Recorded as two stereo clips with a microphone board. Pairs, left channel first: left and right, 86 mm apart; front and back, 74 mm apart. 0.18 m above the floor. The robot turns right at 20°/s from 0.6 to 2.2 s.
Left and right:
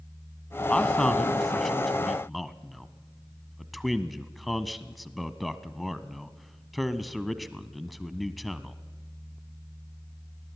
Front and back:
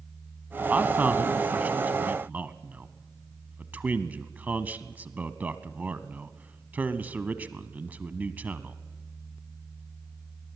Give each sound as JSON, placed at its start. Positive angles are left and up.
{"t": 0.7, "sound": "a man speaking", "azimuth_deg": 155, "distance_m": 1.0}